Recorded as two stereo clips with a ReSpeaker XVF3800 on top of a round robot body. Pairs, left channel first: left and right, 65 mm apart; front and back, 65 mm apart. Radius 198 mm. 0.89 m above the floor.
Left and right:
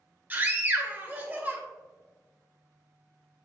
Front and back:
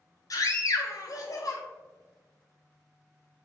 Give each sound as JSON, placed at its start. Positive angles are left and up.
{"t": 0.3, "sound": "a scream", "azimuth_deg": -30, "distance_m": 1.7}